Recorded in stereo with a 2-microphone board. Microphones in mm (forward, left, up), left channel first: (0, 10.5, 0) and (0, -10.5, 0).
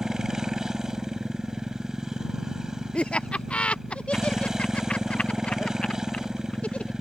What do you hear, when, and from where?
0.0 s a motorcycle: 30° right (ahead or behind)
2.9 s laughter: 70° left (ahead or behind)